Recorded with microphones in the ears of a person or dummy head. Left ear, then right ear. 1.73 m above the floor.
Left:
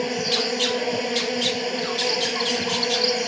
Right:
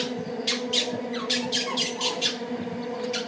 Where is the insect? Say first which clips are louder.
Left 6 dB; 70° left (ahead or behind).